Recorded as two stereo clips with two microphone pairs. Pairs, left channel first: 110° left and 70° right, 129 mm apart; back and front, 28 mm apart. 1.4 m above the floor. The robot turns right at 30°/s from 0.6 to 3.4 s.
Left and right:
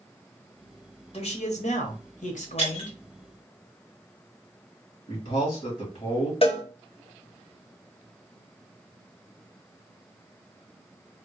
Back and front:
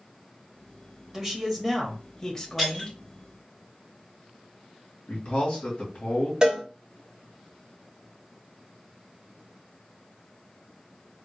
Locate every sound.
1.1 s a man speaking: 70° left, 1.1 m; by 2.9 s 125° left, 1.1 m
2.6 s breaking glass: 85° left, 2.5 m; by 2.9 s 95° left, 2.5 m
5.1 s a man speaking: 130° left, 1.9 m
6.4 s a cowbell: 65° left, 1.0 m